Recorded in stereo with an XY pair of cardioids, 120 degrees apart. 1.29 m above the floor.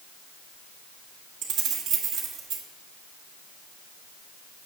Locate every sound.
1.4 s keys jangling: 60° right, 1.4 m